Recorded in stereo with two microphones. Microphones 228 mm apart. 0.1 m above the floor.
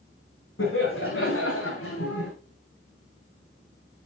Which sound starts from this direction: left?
Laughter, at 0.6 s.